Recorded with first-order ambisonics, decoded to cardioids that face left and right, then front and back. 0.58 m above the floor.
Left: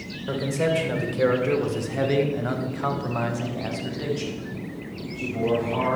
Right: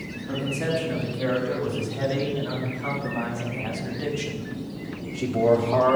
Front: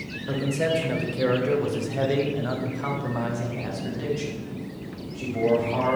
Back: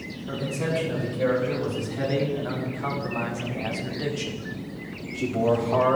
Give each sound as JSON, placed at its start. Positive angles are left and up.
{"t": 0.3, "sound": "a man speaking", "azimuth_deg": 65, "distance_m": 2.5}